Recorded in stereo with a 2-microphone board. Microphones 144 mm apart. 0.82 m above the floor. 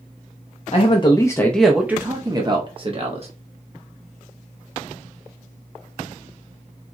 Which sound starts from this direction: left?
A man speaking, at 0.7 s.